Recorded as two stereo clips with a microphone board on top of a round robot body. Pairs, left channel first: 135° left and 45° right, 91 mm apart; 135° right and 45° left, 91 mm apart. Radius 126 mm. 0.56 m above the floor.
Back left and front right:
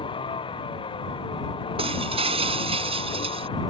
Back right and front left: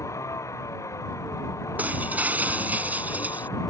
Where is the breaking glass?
30° right.